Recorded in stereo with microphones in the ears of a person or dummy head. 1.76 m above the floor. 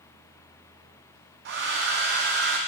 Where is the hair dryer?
60° right (ahead or behind), 0.9 m.